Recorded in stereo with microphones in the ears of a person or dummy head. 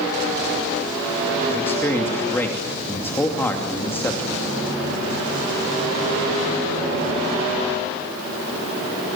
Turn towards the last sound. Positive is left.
turn(degrees=10)  # may be behind; listen again after turning